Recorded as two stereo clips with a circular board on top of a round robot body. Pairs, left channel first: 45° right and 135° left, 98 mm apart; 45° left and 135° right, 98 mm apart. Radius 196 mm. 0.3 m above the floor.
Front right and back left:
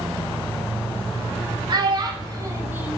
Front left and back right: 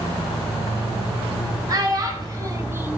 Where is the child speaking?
175° left, 1.2 m; by 3.0 s 150° right, 0.7 m.